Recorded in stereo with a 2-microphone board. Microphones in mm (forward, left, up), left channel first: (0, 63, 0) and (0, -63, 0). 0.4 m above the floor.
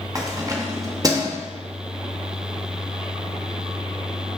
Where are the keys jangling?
30° right (ahead or behind), 0.5 m.